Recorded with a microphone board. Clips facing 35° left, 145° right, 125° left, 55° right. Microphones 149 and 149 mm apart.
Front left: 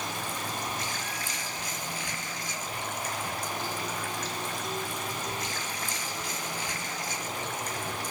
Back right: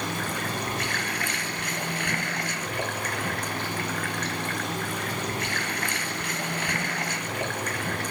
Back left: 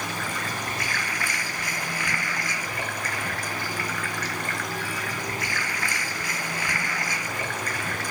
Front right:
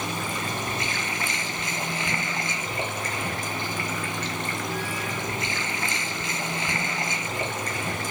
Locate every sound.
0.0 s running water: 125° right